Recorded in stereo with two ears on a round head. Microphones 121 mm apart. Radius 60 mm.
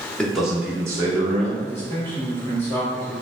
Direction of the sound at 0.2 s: 5° left (ahead or behind).